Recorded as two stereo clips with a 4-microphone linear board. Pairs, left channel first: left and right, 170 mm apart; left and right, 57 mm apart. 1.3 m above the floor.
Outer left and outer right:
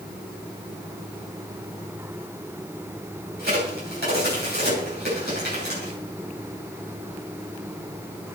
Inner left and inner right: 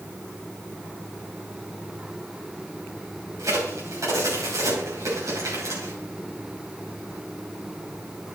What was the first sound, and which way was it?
A crack, 65° right (ahead or behind).